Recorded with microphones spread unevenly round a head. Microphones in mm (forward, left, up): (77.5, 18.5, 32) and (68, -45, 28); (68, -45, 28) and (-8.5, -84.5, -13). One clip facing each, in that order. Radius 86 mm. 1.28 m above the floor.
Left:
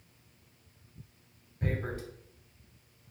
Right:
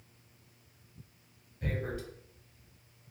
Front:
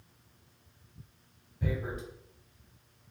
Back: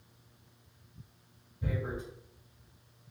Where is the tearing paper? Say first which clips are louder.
Left 2 dB, front 1 dB; 35° left, 0.9 m.